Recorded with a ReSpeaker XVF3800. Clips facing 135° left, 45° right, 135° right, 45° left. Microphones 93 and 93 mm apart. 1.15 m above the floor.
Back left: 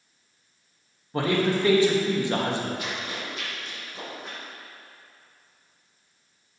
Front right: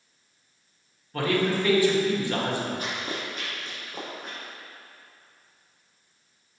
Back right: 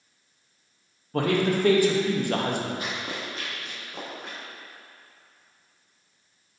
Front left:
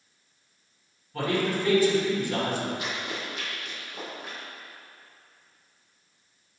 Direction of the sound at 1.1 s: 160° right.